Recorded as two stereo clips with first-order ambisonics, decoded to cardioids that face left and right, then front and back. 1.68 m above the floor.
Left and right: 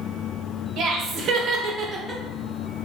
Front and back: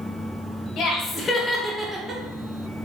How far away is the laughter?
About 0.8 m.